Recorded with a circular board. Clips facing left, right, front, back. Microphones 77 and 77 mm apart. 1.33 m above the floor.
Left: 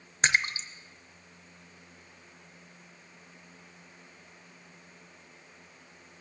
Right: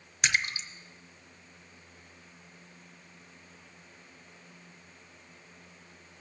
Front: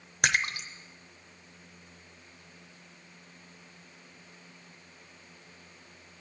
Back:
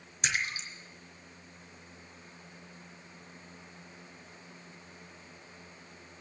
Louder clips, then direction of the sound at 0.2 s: Left 3 dB, front 5 dB; 30° left.